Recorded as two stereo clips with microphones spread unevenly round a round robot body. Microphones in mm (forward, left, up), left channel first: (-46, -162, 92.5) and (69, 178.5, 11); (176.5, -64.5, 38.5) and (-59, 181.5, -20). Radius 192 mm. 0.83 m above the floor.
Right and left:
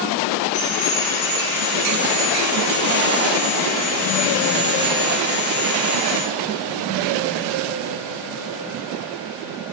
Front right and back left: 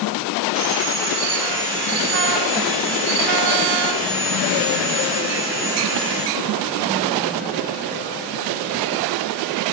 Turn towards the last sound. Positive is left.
turn(degrees=-135)